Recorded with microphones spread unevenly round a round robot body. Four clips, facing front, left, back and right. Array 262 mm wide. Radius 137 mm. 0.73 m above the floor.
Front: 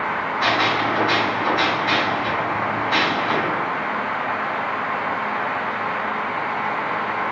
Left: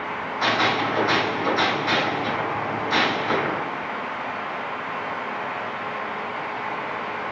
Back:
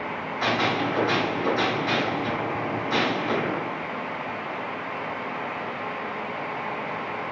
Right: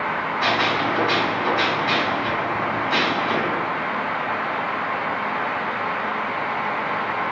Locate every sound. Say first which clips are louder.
0.4 s a gunshot: left 1 dB, front 3 dB; 155° left, 1.9 m